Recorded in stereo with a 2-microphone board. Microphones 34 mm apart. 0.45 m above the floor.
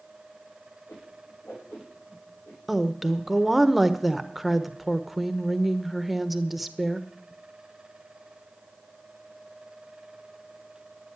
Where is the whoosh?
65° left (ahead or behind), 6 m.